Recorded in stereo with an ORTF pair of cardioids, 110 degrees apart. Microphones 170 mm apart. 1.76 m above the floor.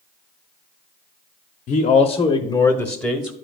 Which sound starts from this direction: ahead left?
A man speaking, at 1.7 s.